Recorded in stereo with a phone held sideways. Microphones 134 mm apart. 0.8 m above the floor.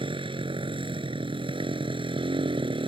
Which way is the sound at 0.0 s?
40° right (ahead or behind).